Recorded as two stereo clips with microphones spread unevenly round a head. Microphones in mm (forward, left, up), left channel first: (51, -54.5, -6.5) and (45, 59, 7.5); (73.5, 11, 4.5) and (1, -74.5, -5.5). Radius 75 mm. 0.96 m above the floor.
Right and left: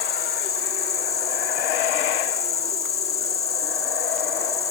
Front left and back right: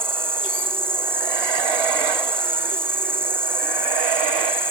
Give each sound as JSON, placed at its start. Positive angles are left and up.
{"t": 0.0, "sound": "an insect", "azimuth_deg": -60}